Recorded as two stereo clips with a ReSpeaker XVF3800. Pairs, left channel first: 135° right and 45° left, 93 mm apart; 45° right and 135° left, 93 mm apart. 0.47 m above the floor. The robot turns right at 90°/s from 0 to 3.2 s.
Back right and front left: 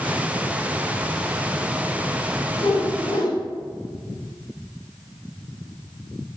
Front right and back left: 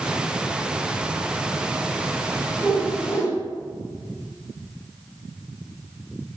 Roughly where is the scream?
No scream in this recording.